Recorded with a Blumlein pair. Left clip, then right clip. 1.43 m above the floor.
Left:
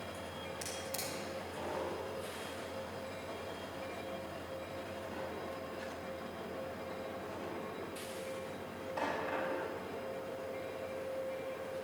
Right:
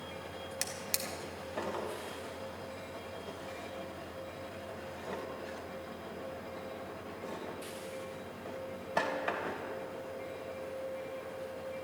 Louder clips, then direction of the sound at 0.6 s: Right 4 dB; 55° right.